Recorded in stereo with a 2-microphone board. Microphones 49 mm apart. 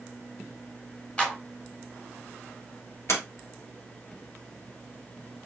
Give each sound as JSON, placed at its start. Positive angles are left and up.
{"t": 1.2, "sound": "a clap", "side_deg": 20, "distance_m": 1.3}
{"t": 3.1, "sound": "a sliding door", "side_deg": 60, "distance_m": 2.0}